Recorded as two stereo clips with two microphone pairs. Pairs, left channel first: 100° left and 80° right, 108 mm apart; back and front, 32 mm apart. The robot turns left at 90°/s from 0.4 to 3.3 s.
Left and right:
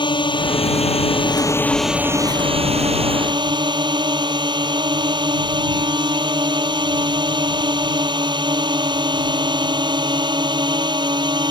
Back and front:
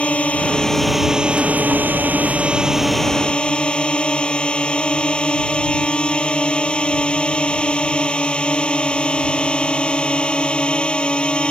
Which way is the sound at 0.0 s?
135° left.